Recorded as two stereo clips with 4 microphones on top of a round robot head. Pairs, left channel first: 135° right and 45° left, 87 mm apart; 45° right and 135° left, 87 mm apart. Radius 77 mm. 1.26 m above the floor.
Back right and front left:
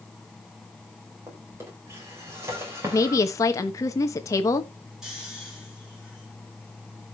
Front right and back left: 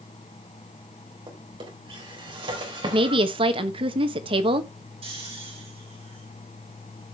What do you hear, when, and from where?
1.3 s a drawer: 105° left, 4 m
2.8 s a woman speaking: 165° left, 1.3 m
5.0 s snoring: 125° left, 6.5 m